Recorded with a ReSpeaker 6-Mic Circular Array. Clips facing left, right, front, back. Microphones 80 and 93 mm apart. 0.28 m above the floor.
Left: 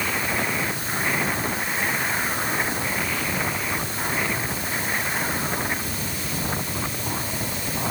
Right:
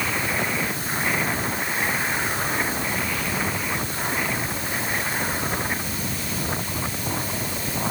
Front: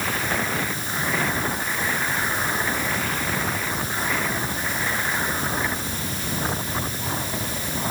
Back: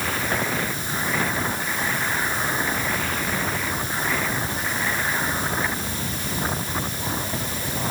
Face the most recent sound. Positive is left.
No sound to turn to.